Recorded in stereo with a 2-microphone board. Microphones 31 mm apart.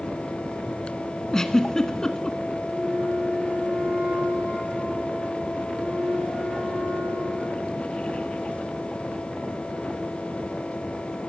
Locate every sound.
1.3 s a giggle: 20° left (ahead or behind), 0.9 m
2.7 s a flute: 75° right (ahead or behind), 7.5 m